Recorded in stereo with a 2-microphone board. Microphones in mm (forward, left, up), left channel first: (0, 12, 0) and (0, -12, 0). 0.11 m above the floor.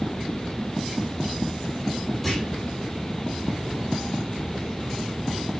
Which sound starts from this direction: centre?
A clunk, at 2.2 s.